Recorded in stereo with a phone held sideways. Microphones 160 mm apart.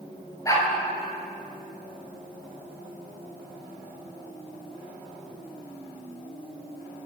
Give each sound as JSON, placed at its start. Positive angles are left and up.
{"t": 0.5, "sound": "a dog barking", "side_deg": 20, "distance_m": 4.5}